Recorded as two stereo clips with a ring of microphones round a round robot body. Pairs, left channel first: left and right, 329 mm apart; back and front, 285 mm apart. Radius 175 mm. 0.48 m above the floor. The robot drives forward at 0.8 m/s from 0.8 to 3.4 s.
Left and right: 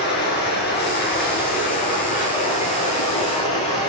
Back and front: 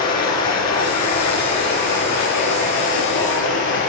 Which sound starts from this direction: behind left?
Running water, at 0.0 s.